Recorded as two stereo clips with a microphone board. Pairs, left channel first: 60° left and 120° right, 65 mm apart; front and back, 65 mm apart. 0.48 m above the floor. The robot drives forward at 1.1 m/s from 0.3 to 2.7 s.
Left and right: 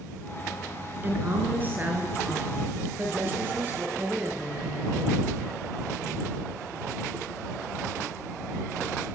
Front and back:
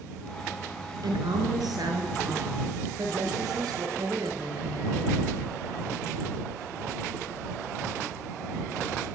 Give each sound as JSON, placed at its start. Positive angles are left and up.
{"t": 1.0, "sound": "a woman speaking", "azimuth_deg": 180, "distance_m": 6.0}